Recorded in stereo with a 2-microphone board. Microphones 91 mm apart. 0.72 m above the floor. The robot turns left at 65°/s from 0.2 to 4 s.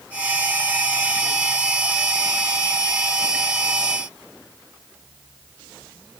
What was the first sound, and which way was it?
Only background noise.